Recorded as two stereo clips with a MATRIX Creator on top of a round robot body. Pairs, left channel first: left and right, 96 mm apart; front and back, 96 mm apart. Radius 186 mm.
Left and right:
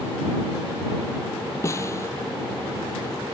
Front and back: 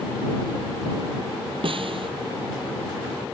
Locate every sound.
1.6 s a snare drum: 150° left